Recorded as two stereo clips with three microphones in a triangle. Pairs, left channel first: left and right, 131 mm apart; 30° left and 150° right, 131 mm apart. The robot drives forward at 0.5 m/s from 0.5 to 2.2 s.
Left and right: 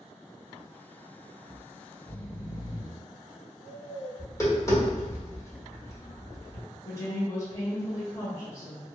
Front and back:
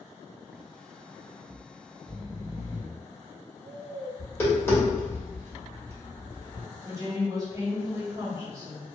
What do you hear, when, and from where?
1.5 s snoring: 135° left, 0.9 m; by 4.1 s 145° left, 1.2 m
4.2 s tapping: 75° left, 1.3 m
6.8 s a woman speaking: 150° left, 1.2 m